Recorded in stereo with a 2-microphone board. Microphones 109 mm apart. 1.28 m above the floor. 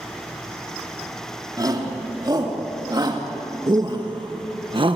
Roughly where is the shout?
Right.